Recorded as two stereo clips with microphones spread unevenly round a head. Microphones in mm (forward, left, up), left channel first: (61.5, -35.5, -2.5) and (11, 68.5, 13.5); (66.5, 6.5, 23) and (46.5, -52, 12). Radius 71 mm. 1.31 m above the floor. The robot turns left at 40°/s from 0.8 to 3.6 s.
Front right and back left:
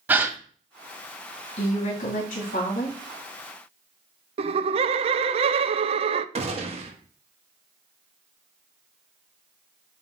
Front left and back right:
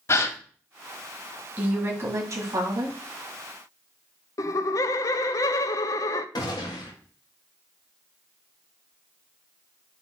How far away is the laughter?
About 0.6 m.